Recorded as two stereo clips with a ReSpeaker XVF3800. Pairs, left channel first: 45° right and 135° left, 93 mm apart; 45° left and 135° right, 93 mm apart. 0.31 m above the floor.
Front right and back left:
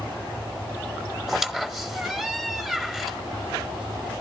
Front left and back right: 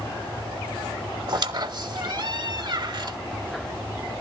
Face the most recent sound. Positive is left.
turn(degrees=-140)